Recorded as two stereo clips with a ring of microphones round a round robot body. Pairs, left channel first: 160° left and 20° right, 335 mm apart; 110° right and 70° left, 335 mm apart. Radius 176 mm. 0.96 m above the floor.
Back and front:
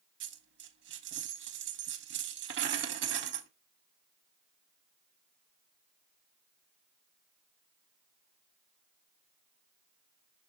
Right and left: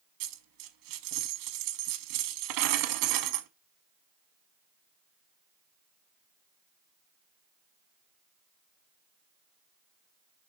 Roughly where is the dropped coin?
Ahead left.